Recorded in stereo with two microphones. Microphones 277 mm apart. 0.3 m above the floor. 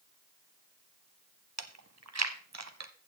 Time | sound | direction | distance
1.6 | chewing | 70° right (ahead or behind) | 0.9 m